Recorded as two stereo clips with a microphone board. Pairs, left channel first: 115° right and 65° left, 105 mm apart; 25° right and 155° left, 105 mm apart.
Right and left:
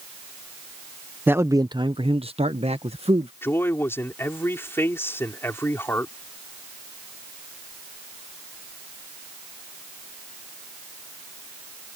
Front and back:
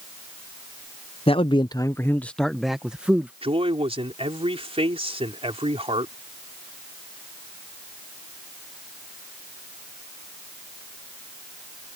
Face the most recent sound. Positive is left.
turn(degrees=180)